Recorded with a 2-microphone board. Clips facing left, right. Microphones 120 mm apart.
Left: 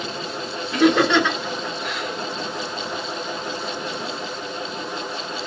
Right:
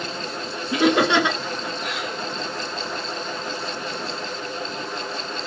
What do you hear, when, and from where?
0.7 s laughter: 15° right (ahead or behind), 1.3 m